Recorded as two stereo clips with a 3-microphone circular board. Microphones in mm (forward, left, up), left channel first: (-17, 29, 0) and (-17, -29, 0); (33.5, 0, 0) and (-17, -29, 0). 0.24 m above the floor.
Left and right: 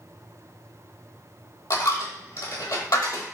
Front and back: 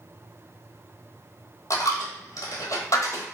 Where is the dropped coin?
65° left, 1.0 m.